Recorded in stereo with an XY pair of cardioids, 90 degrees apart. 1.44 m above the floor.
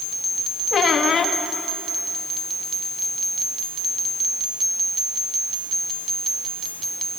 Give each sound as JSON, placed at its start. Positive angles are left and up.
{"t": 0.7, "sound": "a squeak", "azimuth_deg": 60, "distance_m": 1.6}